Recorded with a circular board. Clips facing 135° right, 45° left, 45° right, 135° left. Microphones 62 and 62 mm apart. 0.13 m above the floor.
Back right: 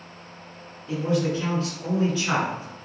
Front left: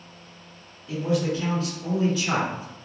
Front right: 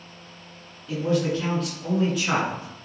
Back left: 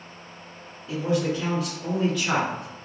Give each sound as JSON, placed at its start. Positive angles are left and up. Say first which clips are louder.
{"t": 0.9, "sound": "a man speaking", "louder": "back right 1 dB, front right 1 dB", "azimuth_deg": -170, "distance_m": 1.7}